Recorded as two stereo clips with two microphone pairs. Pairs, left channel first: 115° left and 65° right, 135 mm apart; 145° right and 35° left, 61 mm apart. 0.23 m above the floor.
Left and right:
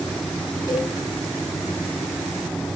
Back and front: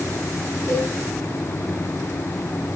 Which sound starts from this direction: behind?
A cowbell, at 0.7 s.